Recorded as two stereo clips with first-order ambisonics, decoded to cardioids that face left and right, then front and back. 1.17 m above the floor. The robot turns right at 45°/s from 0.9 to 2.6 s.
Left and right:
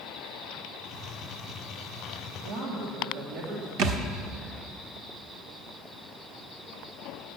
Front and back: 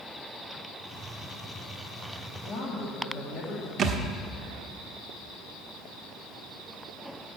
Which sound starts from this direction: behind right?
A thud, at 3.8 s.